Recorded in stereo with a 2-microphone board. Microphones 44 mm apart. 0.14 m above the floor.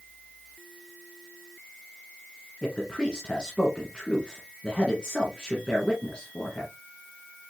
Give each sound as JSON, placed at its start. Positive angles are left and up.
{"t": 2.6, "sound": "a man speaking", "side_deg": 25, "distance_m": 1.5}